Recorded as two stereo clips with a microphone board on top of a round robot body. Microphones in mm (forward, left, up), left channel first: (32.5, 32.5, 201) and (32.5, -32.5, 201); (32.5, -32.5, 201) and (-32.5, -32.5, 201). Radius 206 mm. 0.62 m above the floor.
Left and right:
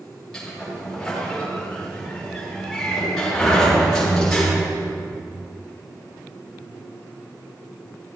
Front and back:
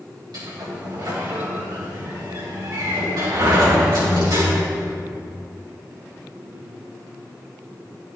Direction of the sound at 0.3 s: 170° left.